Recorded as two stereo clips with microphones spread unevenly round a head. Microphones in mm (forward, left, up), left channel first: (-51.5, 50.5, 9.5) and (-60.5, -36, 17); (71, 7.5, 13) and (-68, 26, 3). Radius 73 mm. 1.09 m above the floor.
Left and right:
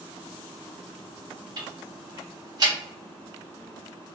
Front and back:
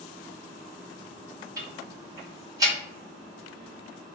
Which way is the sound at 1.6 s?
125° right.